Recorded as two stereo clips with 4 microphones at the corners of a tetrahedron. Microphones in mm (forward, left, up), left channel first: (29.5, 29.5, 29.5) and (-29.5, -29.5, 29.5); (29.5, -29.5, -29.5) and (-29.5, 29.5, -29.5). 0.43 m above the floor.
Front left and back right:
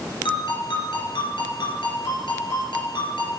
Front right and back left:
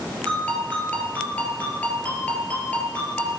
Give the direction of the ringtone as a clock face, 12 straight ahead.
11 o'clock.